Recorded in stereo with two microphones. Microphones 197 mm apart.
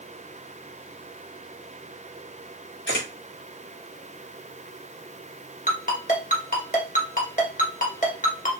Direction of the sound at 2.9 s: 65° left (ahead or behind).